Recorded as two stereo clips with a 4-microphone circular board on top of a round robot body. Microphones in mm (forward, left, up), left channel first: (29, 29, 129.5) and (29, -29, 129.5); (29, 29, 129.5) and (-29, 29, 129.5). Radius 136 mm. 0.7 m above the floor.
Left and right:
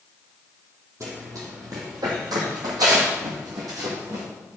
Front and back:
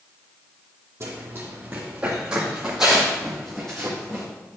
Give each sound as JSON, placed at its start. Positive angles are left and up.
{"t": 1.0, "sound": "running footsteps", "azimuth_deg": -130, "distance_m": 1.8}